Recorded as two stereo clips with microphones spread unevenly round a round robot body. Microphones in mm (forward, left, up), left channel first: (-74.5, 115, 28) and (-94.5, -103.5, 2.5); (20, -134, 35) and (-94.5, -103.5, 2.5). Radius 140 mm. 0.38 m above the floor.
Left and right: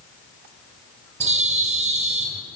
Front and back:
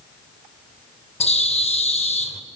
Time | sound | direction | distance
1.2 | a bird | 45° right | 1.3 m